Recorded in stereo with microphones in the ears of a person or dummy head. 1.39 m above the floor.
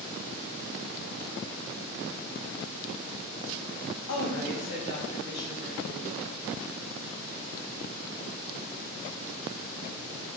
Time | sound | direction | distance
4.1 | a woman speaking | 60° left (ahead or behind) | 0.9 m